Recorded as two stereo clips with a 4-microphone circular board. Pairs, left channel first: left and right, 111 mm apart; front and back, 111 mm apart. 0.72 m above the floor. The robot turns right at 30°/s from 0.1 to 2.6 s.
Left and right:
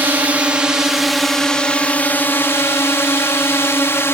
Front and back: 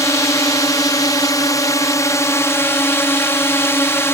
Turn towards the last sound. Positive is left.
turn(degrees=45)